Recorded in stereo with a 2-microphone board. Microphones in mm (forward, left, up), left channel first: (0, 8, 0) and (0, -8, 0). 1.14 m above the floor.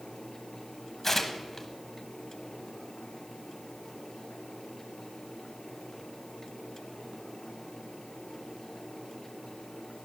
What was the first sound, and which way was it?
Tearing paper, 20° left (ahead or behind).